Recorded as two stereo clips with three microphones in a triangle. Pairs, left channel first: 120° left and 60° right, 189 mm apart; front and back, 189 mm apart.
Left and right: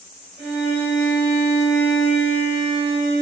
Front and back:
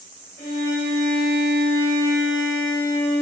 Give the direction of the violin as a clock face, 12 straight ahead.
1 o'clock.